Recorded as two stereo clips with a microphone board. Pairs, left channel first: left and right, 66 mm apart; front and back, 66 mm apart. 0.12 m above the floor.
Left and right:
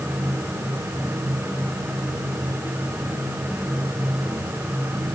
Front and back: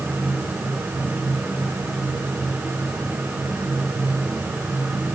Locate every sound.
Only background noise.